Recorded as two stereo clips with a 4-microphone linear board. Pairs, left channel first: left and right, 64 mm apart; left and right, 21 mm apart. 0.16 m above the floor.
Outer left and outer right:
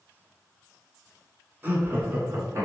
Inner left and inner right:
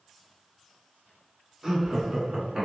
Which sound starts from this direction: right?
Laughter, at 1.6 s.